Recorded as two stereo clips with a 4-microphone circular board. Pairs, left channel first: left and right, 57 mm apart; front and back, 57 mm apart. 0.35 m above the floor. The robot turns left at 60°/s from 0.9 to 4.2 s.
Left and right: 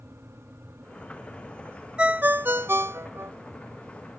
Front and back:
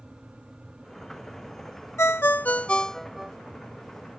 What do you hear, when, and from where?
2.0 s a ringtone: 20° right; by 3.3 s 100° right